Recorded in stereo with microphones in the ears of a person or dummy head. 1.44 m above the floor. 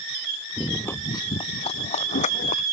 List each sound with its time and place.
0.6 s running footsteps: 5° left (ahead or behind); by 2.6 s 40° left (ahead or behind)